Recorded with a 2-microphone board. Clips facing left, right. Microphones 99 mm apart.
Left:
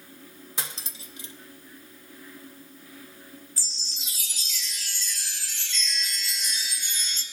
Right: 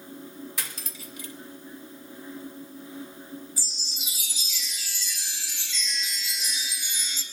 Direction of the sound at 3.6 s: 15° right (ahead or behind).